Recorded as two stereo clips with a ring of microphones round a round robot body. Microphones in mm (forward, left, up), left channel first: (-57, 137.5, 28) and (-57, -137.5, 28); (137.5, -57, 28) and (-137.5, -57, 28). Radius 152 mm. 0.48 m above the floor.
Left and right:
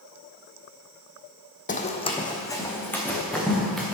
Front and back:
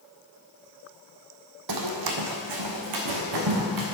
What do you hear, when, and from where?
1.7 s running footsteps: 150° left, 1.3 m; by 4.0 s straight behind, 3.5 m